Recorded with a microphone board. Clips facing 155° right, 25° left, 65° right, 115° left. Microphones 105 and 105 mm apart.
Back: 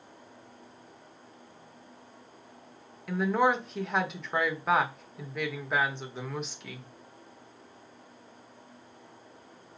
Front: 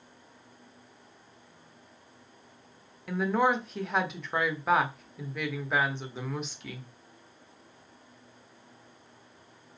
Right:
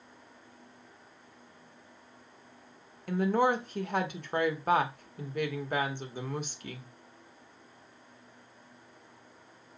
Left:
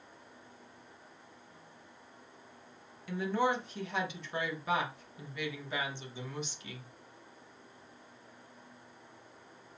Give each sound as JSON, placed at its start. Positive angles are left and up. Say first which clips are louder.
{"t": 3.1, "sound": "a woman speaking", "louder": "even, right 5 dB", "azimuth_deg": -70, "distance_m": 0.9}